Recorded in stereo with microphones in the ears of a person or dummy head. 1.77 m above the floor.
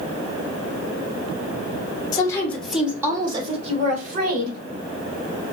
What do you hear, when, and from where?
2.1 s a woman speaking: 20° left (ahead or behind), 1.0 m; by 4.6 s 55° right (ahead or behind), 1.6 m